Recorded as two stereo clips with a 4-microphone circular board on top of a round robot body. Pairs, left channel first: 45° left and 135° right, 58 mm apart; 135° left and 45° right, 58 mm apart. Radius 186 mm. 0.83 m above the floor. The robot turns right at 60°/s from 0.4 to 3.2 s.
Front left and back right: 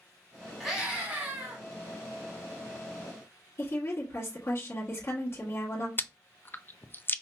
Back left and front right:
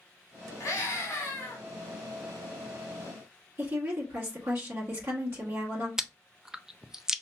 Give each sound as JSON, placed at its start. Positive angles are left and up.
{"t": 0.6, "sound": "a scream", "azimuth_deg": 135, "distance_m": 1.9}
{"t": 3.6, "sound": "a woman speaking", "azimuth_deg": 0, "distance_m": 1.4}
{"t": 6.0, "sound": "chewing", "azimuth_deg": 30, "distance_m": 0.6}